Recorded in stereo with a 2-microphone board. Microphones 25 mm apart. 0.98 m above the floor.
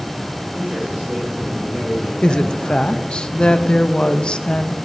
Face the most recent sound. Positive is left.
turn(degrees=40)  # may be behind; listen again after turning